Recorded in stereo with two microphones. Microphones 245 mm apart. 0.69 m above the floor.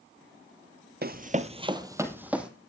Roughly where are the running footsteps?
Right.